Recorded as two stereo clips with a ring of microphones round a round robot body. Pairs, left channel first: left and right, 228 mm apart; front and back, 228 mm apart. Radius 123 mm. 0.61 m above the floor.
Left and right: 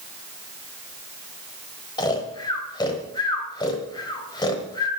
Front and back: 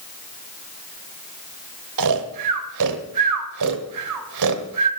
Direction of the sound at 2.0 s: 165° left.